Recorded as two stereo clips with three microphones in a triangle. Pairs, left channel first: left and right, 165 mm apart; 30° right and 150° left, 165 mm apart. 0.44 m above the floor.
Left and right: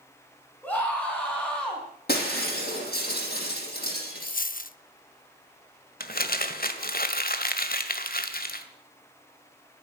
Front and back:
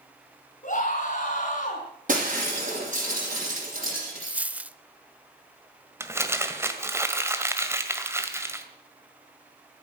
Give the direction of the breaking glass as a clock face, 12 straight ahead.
8 o'clock.